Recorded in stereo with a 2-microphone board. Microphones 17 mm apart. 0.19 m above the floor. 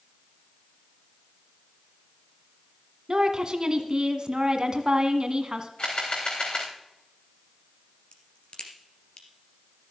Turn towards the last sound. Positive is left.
turn(degrees=65)  # may be behind; listen again after turning